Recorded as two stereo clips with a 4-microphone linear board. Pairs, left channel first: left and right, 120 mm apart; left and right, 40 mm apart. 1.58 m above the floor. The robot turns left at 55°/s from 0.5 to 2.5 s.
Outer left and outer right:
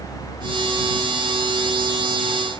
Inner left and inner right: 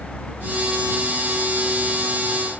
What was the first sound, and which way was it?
Only background noise.